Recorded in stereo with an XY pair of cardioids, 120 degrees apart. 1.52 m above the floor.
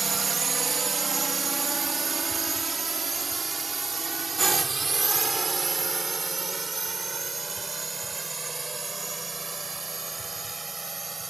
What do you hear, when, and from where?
0.0 s a drone: 30° right; by 11.3 s 20° right